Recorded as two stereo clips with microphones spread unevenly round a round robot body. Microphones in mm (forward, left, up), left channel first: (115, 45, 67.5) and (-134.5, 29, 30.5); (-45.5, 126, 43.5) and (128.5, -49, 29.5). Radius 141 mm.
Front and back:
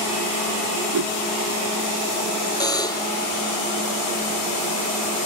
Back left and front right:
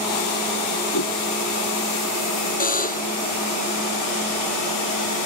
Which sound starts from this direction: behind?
A whoosh, at 0.9 s.